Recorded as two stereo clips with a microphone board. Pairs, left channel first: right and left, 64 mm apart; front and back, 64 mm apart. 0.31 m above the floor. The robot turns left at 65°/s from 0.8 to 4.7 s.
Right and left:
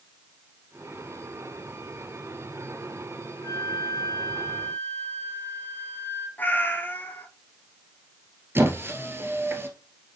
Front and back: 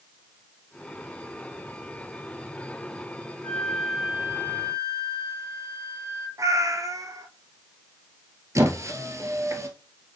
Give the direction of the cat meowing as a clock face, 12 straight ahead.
5 o'clock.